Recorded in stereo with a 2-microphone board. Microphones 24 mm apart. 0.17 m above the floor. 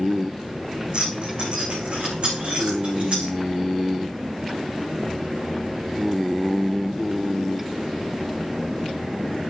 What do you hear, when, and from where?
0.9 s keys jangling: 45° right (ahead or behind), 6.5 m; by 3.3 s 55° right (ahead or behind), 9 m